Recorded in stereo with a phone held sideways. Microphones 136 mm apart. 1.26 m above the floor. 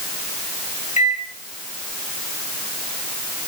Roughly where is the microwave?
Left.